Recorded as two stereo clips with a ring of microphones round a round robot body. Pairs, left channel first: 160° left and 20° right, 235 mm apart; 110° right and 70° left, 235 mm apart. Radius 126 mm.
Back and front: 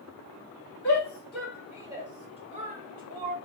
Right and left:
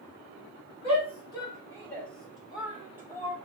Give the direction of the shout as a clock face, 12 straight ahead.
5 o'clock.